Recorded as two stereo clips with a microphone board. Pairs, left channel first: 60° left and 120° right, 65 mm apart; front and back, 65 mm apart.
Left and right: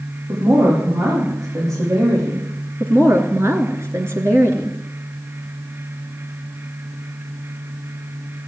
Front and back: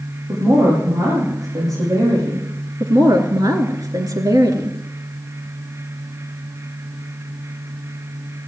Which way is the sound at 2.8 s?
165° right.